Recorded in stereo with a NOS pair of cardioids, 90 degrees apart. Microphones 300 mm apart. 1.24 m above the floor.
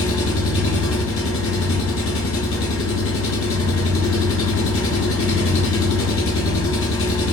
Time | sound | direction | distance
0.0 | an engine running | 45° left | 0.8 m